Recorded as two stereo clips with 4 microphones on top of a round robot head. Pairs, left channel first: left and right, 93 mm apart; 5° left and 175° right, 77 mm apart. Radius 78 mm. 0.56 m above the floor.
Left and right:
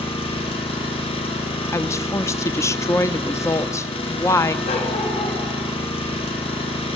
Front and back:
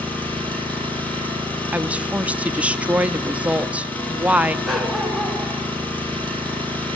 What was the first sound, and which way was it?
An engine running, 70° left.